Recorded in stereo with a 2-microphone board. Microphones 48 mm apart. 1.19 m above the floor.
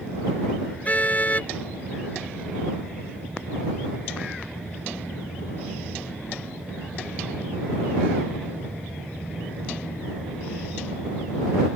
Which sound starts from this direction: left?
A car horn, at 0.8 s.